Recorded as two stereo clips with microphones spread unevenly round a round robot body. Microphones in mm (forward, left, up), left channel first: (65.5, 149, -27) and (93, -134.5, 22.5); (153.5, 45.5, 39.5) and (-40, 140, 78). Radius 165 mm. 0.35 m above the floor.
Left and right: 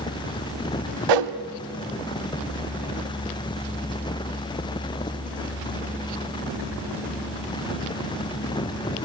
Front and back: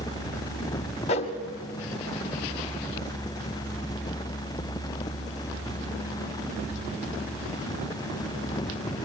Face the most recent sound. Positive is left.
turn(degrees=-90)